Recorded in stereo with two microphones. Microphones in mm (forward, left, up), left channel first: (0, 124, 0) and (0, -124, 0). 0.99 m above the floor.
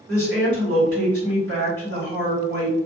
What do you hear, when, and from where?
0.1 s a woman speaking: 55° right (ahead or behind), 1.7 m